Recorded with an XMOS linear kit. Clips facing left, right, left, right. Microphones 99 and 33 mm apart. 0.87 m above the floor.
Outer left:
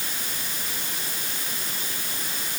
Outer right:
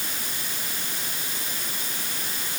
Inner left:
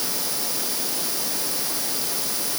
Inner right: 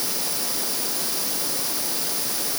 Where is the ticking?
I don't hear ticking.